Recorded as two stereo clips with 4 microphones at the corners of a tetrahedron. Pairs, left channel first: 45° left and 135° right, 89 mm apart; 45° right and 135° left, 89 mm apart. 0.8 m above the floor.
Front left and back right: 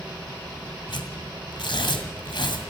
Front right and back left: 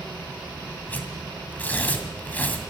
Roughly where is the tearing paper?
Ahead left.